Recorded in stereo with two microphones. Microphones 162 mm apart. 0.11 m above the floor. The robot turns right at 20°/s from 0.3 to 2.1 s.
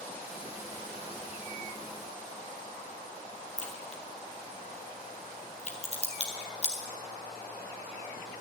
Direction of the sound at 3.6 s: 45° left (ahead or behind).